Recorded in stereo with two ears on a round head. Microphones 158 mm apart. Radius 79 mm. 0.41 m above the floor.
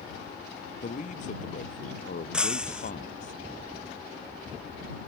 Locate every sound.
0.8 s a man speaking: 45° left (ahead or behind); by 3.3 s 50° left (ahead or behind)
2.3 s breaking glass: 5° right (ahead or behind)